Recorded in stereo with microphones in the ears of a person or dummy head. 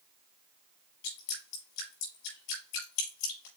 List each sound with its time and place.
1.0 s dripping: 60° left (ahead or behind), 4.5 m